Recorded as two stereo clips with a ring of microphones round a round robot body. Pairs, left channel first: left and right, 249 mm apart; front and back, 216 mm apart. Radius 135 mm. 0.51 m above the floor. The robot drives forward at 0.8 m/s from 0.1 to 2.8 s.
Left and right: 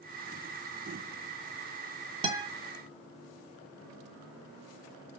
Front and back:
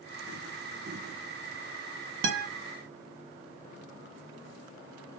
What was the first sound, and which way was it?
A guitar, 160° right.